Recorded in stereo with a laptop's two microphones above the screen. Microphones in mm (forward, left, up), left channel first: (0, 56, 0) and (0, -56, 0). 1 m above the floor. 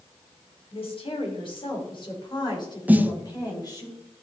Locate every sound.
0.7 s a woman speaking: 55° left (ahead or behind), 3 m; by 3.9 s 35° left (ahead or behind), 4 m
2.9 s a snare drum: 15° right (ahead or behind), 0.8 m